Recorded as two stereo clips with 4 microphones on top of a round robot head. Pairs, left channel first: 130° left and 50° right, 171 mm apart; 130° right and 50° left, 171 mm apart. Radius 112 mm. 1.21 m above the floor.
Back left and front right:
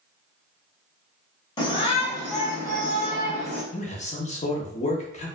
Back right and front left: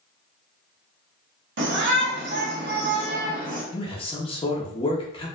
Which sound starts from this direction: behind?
A man speaking, at 3.7 s.